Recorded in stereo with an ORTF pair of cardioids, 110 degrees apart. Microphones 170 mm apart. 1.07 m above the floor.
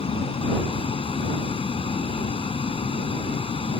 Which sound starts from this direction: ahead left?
A vehicle, at 0.0 s.